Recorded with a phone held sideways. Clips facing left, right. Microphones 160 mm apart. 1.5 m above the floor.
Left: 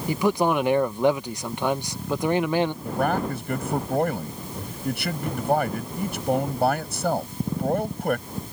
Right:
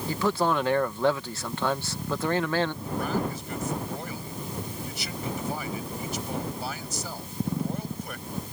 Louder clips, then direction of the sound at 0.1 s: Left 4 dB; 15° left (ahead or behind).